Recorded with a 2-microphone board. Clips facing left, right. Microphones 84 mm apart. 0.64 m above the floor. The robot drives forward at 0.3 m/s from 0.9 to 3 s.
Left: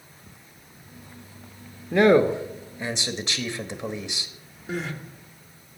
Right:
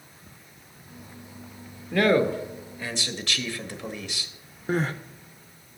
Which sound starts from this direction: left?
A man speaking, at 1.9 s.